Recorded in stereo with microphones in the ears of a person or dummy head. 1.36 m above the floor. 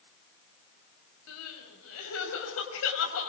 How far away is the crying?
About 6.5 m.